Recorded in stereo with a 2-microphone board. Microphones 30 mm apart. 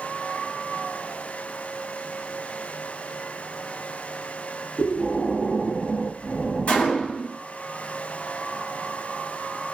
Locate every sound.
4.8 s breathing: 5° left (ahead or behind), 1.1 m
6.7 s a gunshot: 50° left (ahead or behind), 1.2 m